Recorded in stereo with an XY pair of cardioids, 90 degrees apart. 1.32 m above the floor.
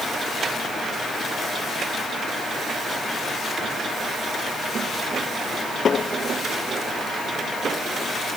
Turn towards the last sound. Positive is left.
No sound to turn to.